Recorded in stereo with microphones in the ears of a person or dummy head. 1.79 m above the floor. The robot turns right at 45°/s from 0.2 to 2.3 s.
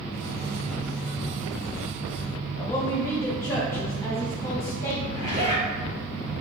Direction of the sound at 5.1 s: 40° right (ahead or behind).